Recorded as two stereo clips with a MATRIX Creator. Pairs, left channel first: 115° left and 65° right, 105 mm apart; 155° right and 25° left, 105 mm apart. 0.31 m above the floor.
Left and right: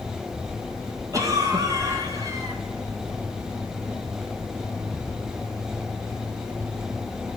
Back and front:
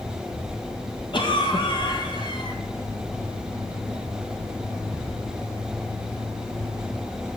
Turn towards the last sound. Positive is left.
turn(degrees=-125)